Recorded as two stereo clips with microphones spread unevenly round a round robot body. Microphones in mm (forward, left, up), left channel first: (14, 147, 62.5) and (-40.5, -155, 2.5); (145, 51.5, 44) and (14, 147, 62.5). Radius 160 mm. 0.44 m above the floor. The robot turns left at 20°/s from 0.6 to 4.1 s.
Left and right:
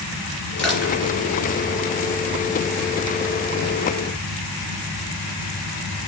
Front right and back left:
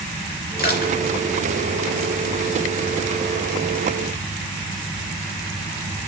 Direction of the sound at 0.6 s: 5° right.